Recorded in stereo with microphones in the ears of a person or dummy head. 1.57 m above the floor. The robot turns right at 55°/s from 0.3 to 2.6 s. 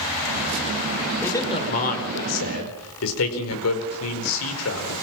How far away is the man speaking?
About 4.5 m.